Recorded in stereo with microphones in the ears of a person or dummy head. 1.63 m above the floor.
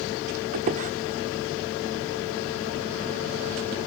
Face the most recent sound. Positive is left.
turn(degrees=-40)  # may be behind; listen again after turning